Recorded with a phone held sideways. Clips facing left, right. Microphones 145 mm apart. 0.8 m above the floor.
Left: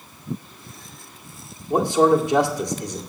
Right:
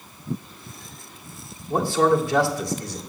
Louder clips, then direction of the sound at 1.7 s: Left 3 dB; 20° left (ahead or behind).